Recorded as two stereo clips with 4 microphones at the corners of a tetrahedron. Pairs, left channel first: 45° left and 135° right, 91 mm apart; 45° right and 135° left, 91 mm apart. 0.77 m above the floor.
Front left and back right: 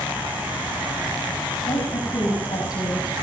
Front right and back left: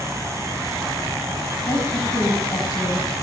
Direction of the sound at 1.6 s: 15° left.